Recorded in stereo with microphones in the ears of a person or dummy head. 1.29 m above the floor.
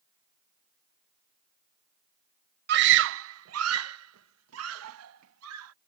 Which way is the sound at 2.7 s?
55° right (ahead or behind).